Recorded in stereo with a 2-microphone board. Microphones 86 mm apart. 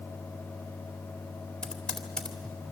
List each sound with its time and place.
1.6 s typing on a keyboard: 10° left (ahead or behind), 2 m